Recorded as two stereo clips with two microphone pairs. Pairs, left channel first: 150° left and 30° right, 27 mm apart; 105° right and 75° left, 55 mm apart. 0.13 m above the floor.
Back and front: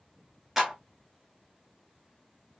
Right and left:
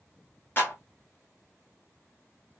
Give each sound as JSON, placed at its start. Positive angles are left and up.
{"t": 0.6, "sound": "a clap", "azimuth_deg": -105, "distance_m": 1.6}